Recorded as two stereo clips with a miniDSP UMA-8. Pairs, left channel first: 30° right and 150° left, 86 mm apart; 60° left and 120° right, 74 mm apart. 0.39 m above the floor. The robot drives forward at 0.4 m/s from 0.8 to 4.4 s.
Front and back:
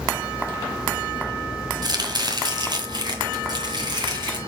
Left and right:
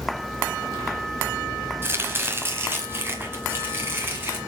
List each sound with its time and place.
1.8 s chopping: 175° right, 1.4 m; by 4.4 s straight behind, 2.5 m